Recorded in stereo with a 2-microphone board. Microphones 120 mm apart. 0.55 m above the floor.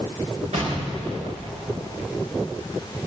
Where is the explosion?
75° right (ahead or behind), 4.5 m.